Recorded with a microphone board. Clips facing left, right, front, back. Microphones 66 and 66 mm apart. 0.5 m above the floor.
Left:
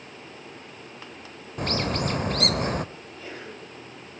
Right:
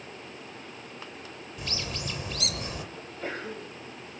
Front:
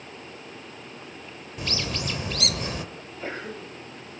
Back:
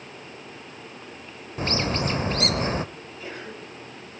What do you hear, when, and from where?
1.6 s a bird: 125° left, 0.6 m
3.0 s a sneeze: 50° right, 2 m